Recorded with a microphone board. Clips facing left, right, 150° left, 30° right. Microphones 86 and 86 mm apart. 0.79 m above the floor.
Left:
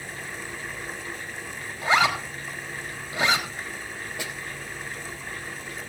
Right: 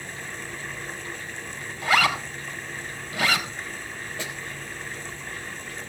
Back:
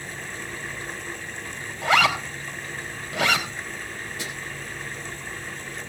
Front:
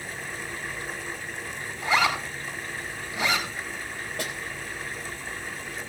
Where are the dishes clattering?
No dishes clattering in this recording.